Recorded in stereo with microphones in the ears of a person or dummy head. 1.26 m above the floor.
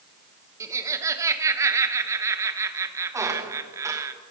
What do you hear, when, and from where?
0.6 s laughter: 10° right (ahead or behind), 0.9 m
3.1 s a squeak: 20° right (ahead or behind), 0.8 m